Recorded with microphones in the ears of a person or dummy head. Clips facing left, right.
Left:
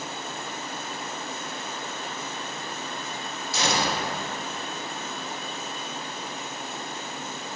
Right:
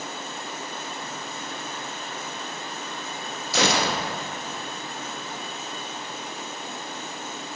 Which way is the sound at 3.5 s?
50° right (ahead or behind).